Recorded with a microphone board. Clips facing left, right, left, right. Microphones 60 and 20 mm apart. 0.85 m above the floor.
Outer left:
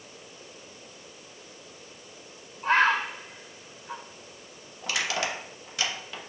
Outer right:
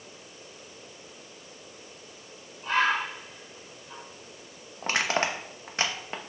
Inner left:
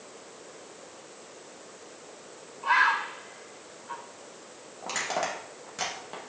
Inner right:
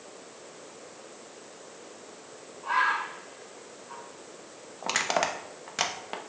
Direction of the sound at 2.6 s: 50° left (ahead or behind).